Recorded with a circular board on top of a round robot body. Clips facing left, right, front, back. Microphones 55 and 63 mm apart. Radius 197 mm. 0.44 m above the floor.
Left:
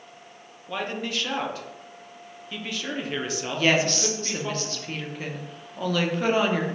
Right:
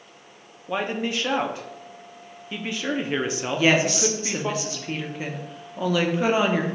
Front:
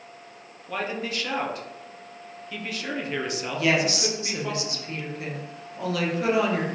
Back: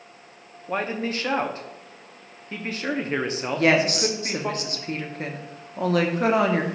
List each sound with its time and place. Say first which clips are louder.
0.7 s a man speaking: right 4 dB, back 3 dB; 140° right, 0.9 m
3.5 s a woman speaking: right 2 dB, back 4 dB; 165° right, 1.2 m